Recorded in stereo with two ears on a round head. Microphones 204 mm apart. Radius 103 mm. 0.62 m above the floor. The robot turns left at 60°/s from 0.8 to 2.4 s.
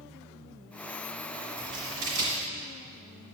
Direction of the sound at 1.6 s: 65° right (ahead or behind).